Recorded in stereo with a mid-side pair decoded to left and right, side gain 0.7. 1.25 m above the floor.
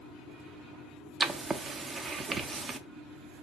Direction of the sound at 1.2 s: 25° right.